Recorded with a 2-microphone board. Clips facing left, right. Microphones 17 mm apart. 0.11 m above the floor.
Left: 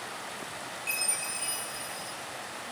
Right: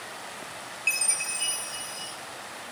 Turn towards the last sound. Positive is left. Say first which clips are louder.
# right 6 dB
turn(degrees=-50)  # may be behind; listen again after turning